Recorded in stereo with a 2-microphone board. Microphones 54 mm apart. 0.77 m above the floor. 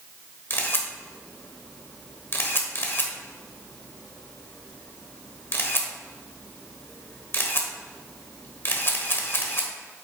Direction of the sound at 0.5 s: 45° left (ahead or behind).